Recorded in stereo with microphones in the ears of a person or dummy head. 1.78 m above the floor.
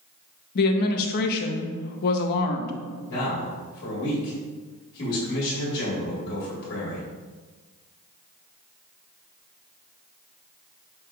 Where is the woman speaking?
55° left (ahead or behind), 0.6 m.